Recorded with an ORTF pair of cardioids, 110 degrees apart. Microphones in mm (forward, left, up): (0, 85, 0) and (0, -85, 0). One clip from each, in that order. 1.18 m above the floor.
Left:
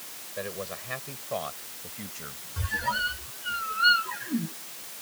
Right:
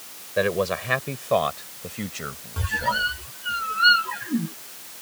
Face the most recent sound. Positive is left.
turn(degrees=-20)